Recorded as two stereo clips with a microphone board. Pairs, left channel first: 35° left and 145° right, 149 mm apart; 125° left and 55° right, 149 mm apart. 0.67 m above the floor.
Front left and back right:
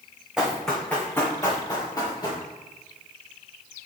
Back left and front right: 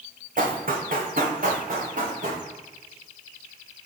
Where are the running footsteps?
60° right, 1.8 m; by 2.4 s 25° right, 4 m.